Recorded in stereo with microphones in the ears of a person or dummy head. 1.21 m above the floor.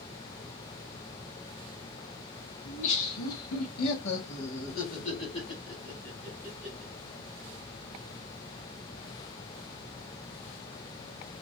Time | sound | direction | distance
2.6 | laughter | 75° left (ahead or behind) | 1.6 m